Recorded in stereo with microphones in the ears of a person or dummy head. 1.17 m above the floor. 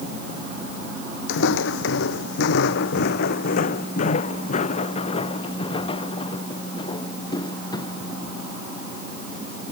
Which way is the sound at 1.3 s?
70° left (ahead or behind).